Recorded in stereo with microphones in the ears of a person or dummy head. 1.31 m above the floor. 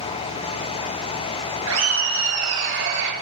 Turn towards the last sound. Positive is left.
turn(degrees=-60)  # may be behind; listen again after turning